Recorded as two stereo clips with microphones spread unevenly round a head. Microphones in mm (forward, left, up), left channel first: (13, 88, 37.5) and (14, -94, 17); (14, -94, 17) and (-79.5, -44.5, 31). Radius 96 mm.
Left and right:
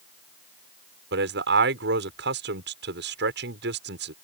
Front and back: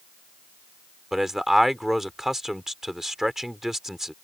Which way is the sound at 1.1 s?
120° right.